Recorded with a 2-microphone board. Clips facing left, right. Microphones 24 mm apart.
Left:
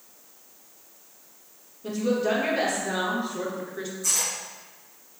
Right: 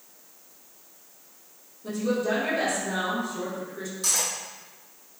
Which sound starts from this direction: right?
Cutlery clinking, at 4.0 s.